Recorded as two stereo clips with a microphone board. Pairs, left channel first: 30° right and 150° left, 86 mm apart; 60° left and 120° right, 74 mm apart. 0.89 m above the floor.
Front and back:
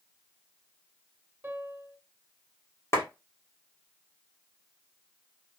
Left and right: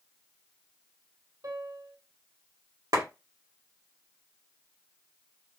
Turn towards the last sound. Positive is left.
turn(degrees=-85)